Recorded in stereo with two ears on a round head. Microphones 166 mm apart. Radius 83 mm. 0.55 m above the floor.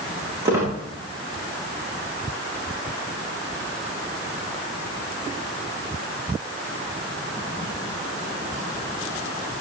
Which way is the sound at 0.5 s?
15° right (ahead or behind).